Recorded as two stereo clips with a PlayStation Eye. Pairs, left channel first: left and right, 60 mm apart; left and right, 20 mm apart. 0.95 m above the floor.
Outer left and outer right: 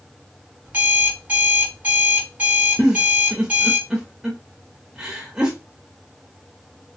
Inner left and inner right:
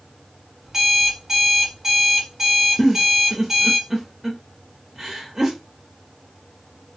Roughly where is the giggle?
Centre.